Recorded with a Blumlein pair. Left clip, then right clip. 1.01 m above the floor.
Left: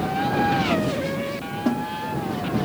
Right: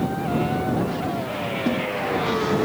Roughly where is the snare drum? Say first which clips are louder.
Left 1 dB; ahead.